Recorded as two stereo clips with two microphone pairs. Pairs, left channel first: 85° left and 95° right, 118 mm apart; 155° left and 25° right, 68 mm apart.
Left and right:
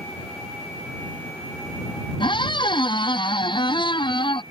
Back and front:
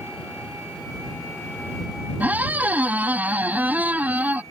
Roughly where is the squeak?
Ahead left.